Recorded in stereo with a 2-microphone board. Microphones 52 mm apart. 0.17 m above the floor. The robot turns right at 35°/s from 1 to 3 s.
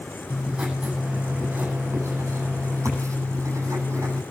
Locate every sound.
0.3 s writing: 155° right, 9 m; by 4.2 s 85° right, 9 m